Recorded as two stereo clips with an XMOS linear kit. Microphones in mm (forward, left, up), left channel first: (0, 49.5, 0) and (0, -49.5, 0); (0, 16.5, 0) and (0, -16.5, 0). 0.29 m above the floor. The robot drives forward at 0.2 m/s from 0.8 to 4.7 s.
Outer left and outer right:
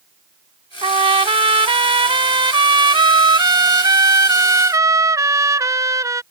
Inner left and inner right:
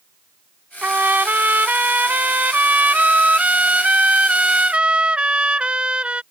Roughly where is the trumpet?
Right.